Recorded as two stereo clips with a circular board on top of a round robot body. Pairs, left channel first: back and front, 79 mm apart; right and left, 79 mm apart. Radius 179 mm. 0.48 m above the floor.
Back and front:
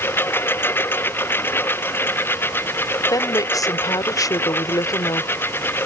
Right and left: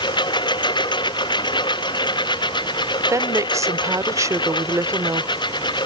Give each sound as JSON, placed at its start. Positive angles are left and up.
{"t": 0.0, "sound": "a lawn mower", "azimuth_deg": -115}
{"t": 3.1, "sound": "a woman speaking", "azimuth_deg": 140}